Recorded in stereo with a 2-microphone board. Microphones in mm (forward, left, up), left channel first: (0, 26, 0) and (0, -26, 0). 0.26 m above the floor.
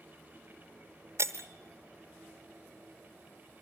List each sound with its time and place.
1.2 s breaking glass: 65° right (ahead or behind), 1.1 m